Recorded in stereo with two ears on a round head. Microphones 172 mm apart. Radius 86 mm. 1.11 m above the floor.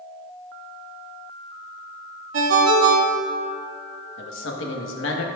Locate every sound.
2.3 s a ringtone: 75° right (ahead or behind), 1.1 m
4.2 s a man speaking: 75° left (ahead or behind), 1.2 m